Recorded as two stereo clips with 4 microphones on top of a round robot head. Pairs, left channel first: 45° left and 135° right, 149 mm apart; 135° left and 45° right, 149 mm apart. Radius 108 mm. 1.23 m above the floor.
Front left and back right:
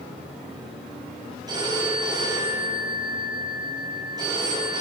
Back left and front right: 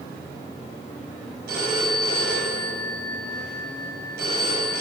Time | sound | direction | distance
1.5 | a phone ringing | 70° right | 6.5 m